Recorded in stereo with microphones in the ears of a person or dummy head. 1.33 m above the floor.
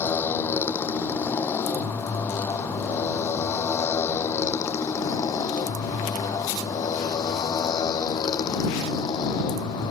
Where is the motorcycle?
15° left (ahead or behind); by 9.9 s 30° left (ahead or behind).